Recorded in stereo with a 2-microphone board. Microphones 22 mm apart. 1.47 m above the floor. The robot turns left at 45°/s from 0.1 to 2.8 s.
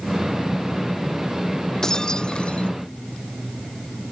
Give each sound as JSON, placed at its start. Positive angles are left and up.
{"t": 1.8, "sound": "breaking glass", "azimuth_deg": 155}